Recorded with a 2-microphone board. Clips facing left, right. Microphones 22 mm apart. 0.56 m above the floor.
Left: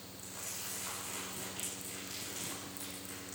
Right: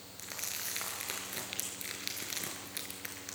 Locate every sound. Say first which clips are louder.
0.2 s crumpling: right 5 dB; 65° right (ahead or behind), 5 m